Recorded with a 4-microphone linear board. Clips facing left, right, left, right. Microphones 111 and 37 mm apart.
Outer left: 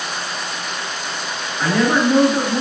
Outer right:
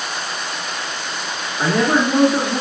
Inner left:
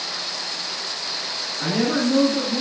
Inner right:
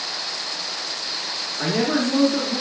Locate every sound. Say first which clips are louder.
1.6 s a man speaking: even, even; 25° right (ahead or behind), 1.2 m